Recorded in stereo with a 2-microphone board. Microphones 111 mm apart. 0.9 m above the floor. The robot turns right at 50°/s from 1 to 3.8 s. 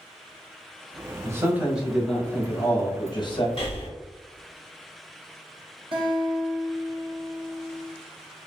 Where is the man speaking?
35° right, 0.8 m; by 3.5 s 75° left, 0.8 m.